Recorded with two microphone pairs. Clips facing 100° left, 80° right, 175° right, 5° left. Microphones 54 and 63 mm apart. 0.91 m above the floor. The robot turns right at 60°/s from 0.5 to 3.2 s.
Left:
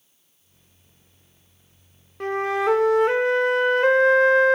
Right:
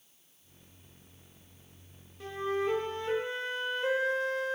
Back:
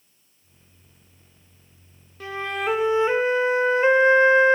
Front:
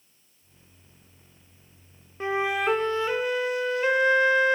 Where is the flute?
65° left, 0.7 m; by 4.6 s 125° left, 0.7 m.